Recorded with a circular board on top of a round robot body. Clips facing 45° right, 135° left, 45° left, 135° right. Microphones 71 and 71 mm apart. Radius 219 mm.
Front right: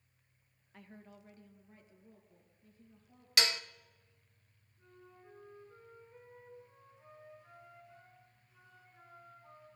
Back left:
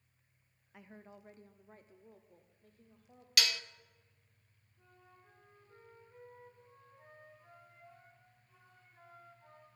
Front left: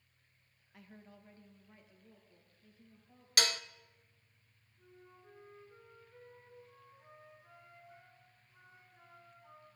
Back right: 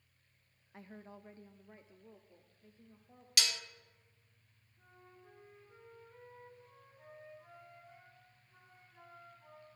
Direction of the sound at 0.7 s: 155° right.